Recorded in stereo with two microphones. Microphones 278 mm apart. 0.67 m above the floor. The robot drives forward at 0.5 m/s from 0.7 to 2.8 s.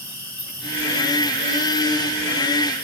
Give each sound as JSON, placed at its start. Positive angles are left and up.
{"t": 0.0, "sound": "an insect", "side_deg": 75, "distance_m": 4.0}